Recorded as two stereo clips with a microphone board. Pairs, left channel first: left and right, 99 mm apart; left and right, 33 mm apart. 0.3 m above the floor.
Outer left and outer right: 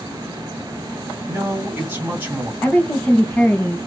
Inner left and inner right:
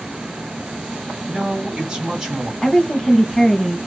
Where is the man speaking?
20° right (ahead or behind), 2.5 m.